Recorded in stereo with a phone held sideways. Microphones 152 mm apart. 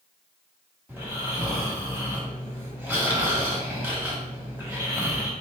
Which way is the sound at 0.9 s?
10° right (ahead or behind).